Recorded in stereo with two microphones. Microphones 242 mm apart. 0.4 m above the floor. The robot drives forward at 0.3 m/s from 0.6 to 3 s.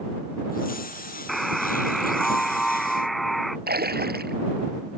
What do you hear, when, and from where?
1.3 s a buzzer: centre (ahead or behind)
3.7 s a splash: 40° right (ahead or behind)